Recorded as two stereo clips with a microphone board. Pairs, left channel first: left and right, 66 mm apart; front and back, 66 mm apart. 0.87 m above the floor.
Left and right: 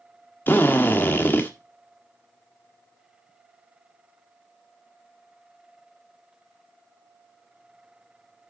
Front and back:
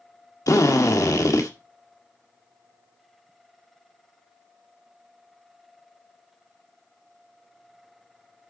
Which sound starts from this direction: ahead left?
A drill, at 0.5 s.